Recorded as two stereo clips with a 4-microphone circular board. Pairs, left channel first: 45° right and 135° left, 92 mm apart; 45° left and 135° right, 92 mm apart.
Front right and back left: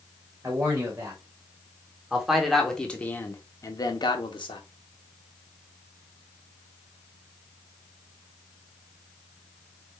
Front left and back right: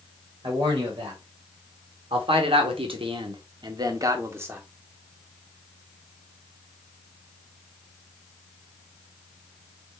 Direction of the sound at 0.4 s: 165° right.